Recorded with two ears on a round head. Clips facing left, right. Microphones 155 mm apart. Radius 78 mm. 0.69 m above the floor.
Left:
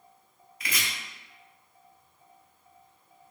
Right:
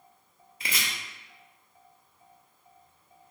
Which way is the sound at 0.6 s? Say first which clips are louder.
Even; 25° right (ahead or behind).